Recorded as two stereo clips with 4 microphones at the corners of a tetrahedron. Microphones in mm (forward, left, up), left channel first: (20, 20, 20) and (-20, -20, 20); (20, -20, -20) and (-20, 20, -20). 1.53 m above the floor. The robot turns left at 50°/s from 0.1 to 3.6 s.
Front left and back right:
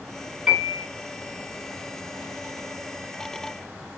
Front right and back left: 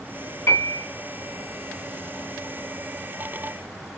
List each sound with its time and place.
0.5 s a piano: 60° right, 2 m; by 0.8 s 80° right, 2 m